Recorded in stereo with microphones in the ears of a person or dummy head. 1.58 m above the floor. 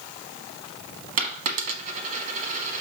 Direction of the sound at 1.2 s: 35° right (ahead or behind).